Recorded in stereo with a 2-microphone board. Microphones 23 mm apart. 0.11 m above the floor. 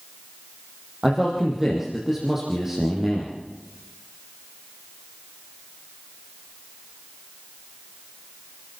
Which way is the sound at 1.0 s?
20° right (ahead or behind).